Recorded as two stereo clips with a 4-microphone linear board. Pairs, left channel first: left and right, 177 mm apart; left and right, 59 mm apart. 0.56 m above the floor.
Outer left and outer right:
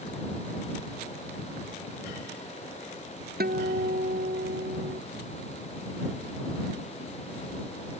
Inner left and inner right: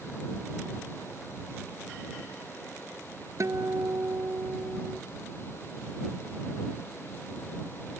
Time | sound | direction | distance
3.4 | a guitar | 60° right (ahead or behind) | ?